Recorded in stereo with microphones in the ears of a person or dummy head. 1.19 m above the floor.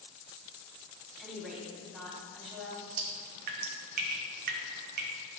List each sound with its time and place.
1.2 s a woman speaking: 5° right (ahead or behind), 2 m
3.0 s dripping: 45° right (ahead or behind), 0.8 m